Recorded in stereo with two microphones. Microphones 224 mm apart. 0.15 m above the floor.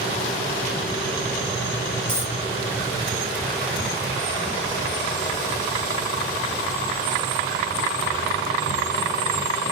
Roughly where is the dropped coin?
Right.